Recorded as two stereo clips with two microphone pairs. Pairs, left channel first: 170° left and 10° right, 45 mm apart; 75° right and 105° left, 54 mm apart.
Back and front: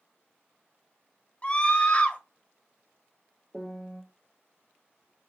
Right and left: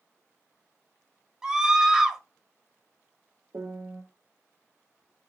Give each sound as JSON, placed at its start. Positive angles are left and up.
{"t": 1.4, "sound": "a scream", "azimuth_deg": 175, "distance_m": 1.1}
{"t": 3.5, "sound": "a piano", "azimuth_deg": 75, "distance_m": 1.0}